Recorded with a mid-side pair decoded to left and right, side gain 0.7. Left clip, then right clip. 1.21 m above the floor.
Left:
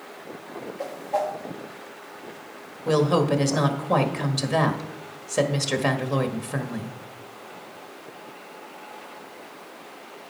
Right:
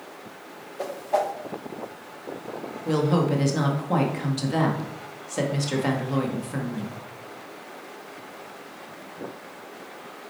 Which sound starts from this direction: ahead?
A woman speaking, at 2.9 s.